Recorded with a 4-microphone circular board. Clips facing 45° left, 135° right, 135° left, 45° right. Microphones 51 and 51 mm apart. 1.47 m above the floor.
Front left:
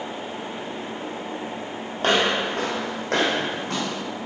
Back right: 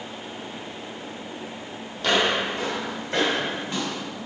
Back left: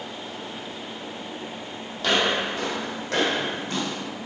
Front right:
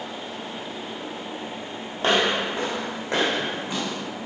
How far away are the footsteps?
About 2.5 m.